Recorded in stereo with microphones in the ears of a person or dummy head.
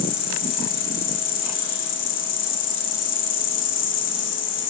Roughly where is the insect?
Left.